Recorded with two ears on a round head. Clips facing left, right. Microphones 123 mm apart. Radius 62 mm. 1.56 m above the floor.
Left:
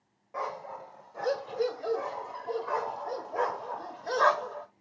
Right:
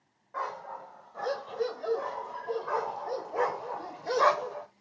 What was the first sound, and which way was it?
A dog barking, 15° left (ahead or behind).